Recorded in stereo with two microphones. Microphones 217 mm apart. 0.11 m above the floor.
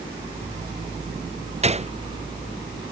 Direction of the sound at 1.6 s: 30° right (ahead or behind).